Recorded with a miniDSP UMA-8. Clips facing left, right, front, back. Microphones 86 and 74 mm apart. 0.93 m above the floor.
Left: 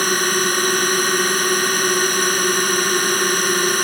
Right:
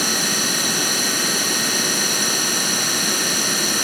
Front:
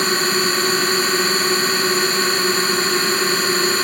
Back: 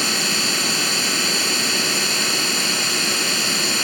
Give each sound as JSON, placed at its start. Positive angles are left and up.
{"t": 0.0, "sound": "a drone", "azimuth_deg": 50}